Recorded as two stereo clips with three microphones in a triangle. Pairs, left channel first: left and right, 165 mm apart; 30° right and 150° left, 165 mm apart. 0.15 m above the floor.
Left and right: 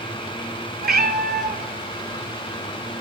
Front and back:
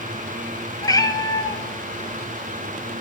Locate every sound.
0.8 s a cat meowing: 95° right, 0.6 m